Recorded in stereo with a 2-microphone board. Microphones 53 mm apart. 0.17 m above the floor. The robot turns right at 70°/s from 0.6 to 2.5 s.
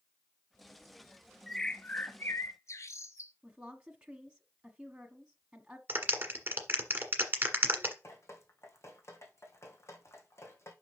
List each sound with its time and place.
1.5 s a bird: straight ahead, 0.9 m; by 3.3 s 70° left, 0.9 m
3.4 s a woman speaking: 15° right (ahead or behind), 1.1 m
5.9 s a clap: 35° right (ahead or behind), 1.6 m
8.0 s dripping: 55° left (ahead or behind), 2 m